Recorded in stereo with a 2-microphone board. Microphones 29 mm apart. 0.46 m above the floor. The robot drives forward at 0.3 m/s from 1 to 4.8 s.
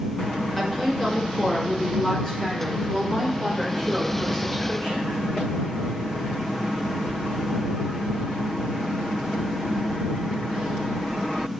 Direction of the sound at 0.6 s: 5° left (ahead or behind).